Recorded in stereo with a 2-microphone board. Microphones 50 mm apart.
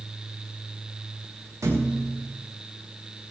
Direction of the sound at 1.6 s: 65° right (ahead or behind).